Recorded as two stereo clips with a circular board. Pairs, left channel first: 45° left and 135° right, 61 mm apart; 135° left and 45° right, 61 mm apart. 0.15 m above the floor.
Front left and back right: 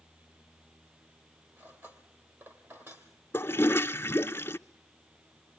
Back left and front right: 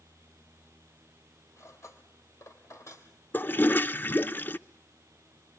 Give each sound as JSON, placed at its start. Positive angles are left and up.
{"t": 1.6, "sound": "cutlery clinking", "azimuth_deg": 175, "distance_m": 3.0}
{"t": 3.3, "sound": "a toilet flushing", "azimuth_deg": 85, "distance_m": 0.5}